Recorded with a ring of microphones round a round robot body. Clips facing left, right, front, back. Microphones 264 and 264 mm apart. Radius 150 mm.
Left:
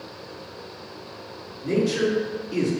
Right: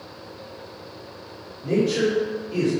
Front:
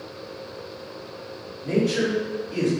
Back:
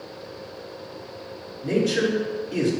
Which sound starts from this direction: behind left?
A man speaking, at 1.6 s.